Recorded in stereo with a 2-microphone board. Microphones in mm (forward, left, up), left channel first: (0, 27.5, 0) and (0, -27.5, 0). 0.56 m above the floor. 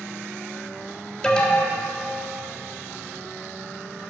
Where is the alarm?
15° left (ahead or behind), 1.3 m.